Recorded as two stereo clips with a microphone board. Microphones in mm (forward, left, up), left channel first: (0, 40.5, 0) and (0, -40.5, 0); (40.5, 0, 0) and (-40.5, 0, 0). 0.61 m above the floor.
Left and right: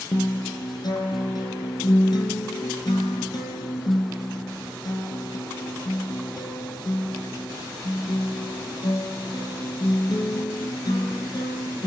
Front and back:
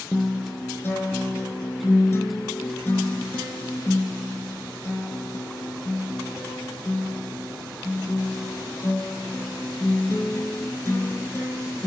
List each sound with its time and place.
0.1 s a guitar: 65° left, 3.5 m